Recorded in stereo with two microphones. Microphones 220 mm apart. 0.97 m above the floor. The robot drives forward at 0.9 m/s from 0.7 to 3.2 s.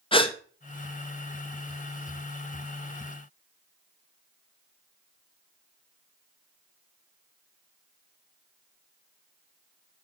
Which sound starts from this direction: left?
A gasp, at 0.1 s.